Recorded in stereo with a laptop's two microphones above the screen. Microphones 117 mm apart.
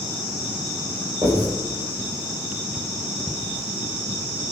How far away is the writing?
About 4.5 m.